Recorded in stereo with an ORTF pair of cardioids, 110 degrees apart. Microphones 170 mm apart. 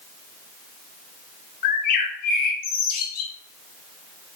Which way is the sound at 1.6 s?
60° left.